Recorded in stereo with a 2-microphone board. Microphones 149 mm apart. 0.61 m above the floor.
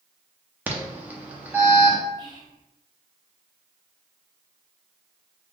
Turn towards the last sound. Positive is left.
turn(degrees=-25)  # may be behind; listen again after turning